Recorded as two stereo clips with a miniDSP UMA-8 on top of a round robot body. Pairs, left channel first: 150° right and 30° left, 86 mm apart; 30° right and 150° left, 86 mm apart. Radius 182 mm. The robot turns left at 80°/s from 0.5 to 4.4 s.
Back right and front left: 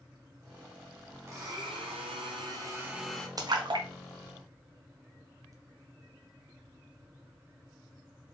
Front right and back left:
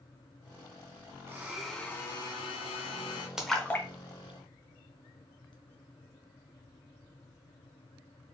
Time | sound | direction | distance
1.3 | a blender | 85° left | 0.6 m
3.4 | a splash | 70° left | 0.9 m